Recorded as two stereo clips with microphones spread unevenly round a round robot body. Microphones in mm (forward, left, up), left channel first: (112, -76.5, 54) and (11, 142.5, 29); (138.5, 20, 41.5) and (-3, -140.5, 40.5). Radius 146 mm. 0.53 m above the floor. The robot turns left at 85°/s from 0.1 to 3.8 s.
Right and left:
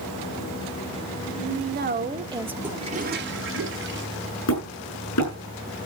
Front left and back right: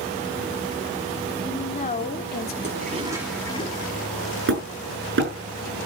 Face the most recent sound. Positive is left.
turn(degrees=-100)